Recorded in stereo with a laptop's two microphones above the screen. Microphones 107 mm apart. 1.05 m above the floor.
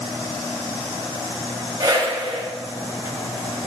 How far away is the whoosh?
About 6 m.